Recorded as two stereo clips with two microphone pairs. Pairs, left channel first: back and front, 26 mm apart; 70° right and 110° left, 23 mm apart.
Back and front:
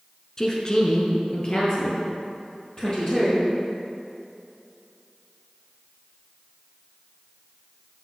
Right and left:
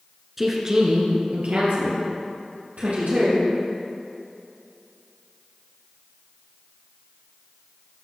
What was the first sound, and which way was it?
A woman speaking, 175° right.